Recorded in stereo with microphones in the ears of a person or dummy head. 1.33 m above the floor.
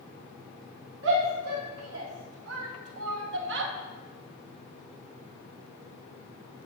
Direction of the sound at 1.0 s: 65° right (ahead or behind).